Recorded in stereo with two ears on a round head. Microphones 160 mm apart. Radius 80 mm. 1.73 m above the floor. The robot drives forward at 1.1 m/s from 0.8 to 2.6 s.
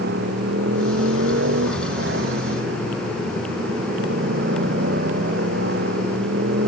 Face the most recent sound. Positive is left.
turn(degrees=-65)  # may be behind; listen again after turning